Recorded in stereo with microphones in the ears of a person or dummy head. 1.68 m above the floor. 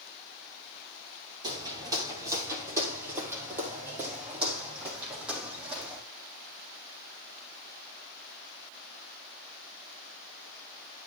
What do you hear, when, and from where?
1.4 s footsteps: 20° right (ahead or behind), 2.5 m; by 6.0 s 5° right (ahead or behind), 5 m